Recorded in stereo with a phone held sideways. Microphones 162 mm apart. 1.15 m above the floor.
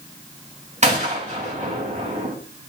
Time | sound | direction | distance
0.8 | a gunshot | 45° right (ahead or behind) | 3.5 m